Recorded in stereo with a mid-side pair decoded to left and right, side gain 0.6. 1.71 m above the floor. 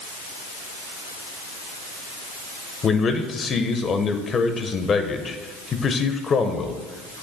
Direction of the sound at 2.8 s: 35° left.